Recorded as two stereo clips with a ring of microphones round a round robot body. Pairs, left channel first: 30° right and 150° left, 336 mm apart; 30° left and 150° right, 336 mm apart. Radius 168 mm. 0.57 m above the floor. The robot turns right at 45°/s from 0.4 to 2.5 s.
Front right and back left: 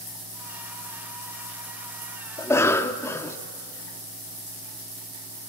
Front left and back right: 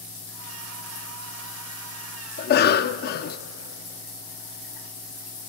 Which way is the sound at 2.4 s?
40° left.